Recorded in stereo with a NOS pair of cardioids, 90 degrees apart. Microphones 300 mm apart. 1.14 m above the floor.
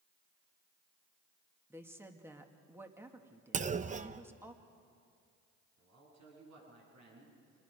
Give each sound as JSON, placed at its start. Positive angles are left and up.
{"t": 1.7, "sound": "a woman speaking", "azimuth_deg": -10, "distance_m": 2.0}
{"t": 3.5, "sound": "a clunk", "azimuth_deg": -25, "distance_m": 0.8}
{"t": 5.8, "sound": "a man speaking", "azimuth_deg": -60, "distance_m": 9.5}